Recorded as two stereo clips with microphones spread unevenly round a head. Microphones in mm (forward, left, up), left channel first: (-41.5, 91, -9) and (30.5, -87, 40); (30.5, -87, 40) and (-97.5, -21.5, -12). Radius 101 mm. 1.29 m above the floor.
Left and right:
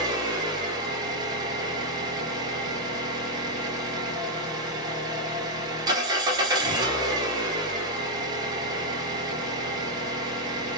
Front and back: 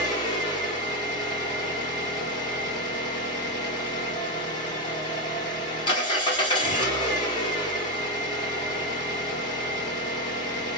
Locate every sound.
0.0 s an engine running: 20° right, 0.8 m